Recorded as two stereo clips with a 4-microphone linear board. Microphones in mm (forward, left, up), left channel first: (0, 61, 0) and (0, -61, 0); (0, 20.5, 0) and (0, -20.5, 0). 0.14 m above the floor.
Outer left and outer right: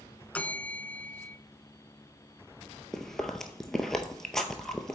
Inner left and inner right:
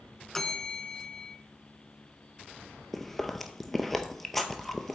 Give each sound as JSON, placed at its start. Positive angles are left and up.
{"t": 0.3, "sound": "a bell", "side_deg": 10, "distance_m": 0.5}
{"t": 2.9, "sound": "chewing", "side_deg": 5, "distance_m": 0.6}